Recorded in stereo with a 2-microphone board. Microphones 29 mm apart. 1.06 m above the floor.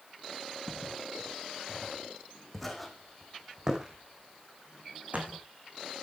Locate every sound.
0.7 s footsteps: 30° left (ahead or behind), 5.5 m; by 5.4 s 60° right (ahead or behind), 4 m